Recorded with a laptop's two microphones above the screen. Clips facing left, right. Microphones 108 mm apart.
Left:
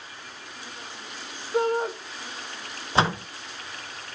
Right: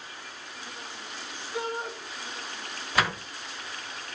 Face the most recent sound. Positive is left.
turn(degrees=30)  # may be behind; listen again after turning